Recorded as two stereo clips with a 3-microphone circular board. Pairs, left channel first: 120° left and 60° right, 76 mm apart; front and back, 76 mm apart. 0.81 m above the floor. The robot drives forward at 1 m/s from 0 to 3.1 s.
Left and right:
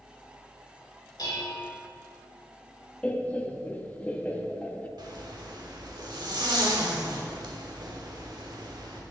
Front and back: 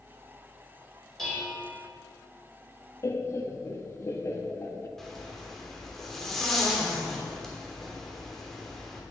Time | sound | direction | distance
1.2 | dishes clattering | 85° left | 2.5 m
3.0 | laughter | 45° left | 0.8 m
5.0 | a zipper | 85° right | 1.2 m